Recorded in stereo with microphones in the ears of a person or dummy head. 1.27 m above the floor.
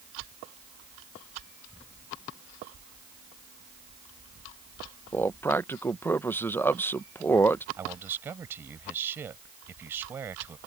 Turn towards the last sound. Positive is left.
turn(degrees=-15)  # may be behind; listen again after turning